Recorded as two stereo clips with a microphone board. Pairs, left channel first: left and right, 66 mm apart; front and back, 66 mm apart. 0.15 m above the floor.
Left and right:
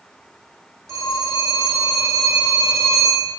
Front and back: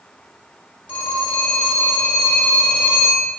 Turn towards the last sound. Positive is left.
turn(degrees=-70)